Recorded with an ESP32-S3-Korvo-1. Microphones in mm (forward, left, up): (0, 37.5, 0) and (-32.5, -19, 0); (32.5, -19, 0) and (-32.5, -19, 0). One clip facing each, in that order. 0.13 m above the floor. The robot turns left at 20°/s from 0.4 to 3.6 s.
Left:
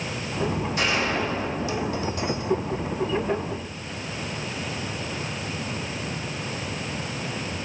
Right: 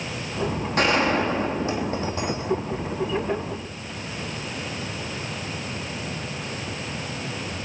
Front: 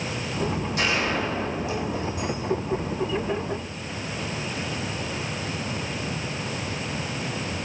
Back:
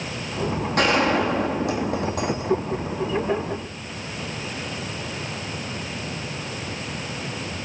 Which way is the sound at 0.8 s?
150° right.